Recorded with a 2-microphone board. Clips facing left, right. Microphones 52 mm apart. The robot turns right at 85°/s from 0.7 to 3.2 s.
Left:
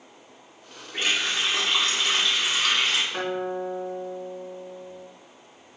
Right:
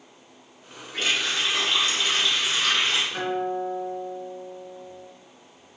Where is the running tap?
15° left, 1.7 m; by 3.0 s 165° right, 1.7 m.